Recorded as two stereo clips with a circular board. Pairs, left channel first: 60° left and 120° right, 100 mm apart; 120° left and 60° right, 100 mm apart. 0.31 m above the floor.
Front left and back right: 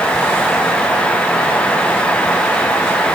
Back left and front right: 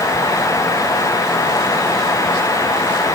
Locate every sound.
Only background noise.